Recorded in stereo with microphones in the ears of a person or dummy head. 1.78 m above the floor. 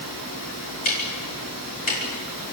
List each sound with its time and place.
0.8 s ticking: 50° left (ahead or behind), 4.5 m